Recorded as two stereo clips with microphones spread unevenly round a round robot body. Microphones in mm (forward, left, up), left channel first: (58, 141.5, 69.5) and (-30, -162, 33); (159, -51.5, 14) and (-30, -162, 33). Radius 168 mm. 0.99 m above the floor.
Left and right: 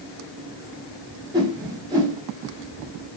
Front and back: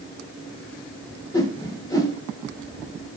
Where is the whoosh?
35° right, 0.9 m.